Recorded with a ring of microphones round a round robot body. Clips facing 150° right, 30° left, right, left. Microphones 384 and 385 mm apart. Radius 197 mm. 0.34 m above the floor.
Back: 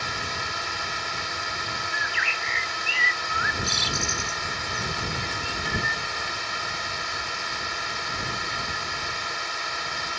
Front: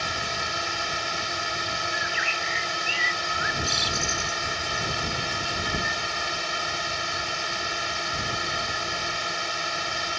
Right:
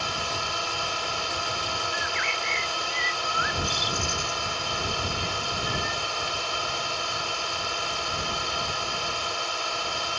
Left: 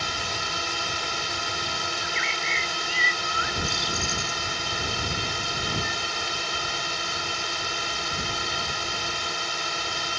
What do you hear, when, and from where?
0.0 s a drone: 45° left
1.9 s a bird: straight behind